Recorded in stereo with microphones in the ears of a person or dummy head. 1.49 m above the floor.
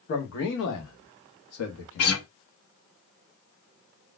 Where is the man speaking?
50° left (ahead or behind), 1.4 m; by 2.1 s 70° left (ahead or behind), 1.4 m.